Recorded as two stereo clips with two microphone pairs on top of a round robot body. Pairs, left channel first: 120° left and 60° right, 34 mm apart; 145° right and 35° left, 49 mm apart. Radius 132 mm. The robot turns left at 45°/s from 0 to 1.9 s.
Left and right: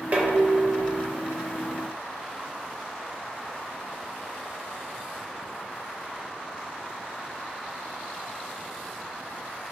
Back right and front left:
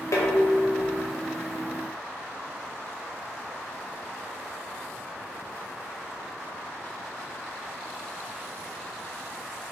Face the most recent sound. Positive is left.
turn(degrees=165)